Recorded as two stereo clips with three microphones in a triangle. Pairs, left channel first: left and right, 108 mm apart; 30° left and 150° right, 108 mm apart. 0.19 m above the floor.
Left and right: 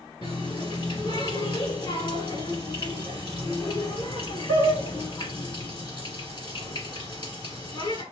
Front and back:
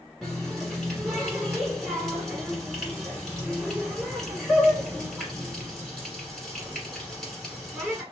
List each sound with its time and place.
0.2 s a running tap: 115° left, 1.6 m